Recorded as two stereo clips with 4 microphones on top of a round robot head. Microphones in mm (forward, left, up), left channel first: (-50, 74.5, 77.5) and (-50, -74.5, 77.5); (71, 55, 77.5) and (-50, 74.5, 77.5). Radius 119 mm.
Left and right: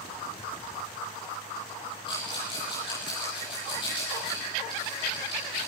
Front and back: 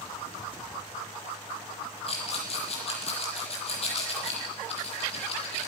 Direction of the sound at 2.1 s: 25° left.